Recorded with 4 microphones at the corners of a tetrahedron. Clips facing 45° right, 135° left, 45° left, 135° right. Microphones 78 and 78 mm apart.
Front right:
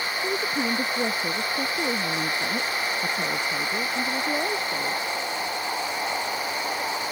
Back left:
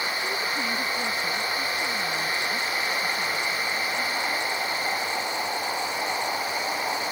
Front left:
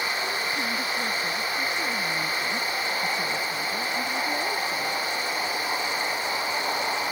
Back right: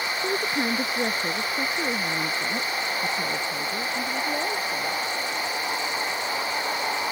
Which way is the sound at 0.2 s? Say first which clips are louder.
Front right 2 dB, back right 3 dB; 105° right.